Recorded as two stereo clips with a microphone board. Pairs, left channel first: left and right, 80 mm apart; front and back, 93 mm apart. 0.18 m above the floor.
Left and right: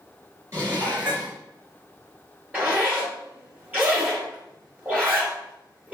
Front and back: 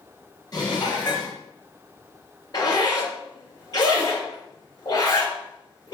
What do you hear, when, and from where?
0.5 s dishes clattering: 40° right, 2 m
2.5 s a zipper: 25° right, 2.5 m